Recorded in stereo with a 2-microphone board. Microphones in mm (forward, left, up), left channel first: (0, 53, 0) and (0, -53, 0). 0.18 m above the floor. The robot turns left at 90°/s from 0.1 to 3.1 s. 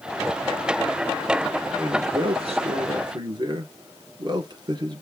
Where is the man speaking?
15° right, 3 m; by 5.0 s 135° right, 3 m.